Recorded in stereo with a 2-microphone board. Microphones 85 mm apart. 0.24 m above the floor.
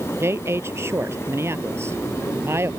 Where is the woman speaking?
30° right (ahead or behind).